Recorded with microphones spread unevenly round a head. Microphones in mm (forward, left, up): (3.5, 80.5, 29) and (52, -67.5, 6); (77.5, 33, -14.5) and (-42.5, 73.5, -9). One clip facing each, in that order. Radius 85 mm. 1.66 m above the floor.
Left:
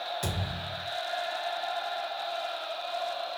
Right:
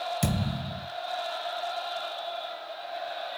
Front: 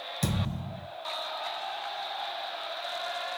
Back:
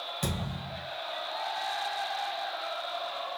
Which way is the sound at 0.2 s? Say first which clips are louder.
Right 5 dB, front 4 dB; 100° right.